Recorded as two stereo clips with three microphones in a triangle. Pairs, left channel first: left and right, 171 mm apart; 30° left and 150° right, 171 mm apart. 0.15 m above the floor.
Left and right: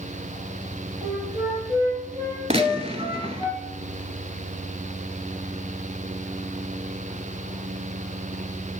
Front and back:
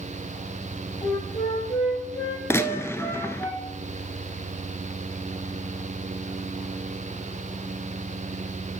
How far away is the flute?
About 4 m.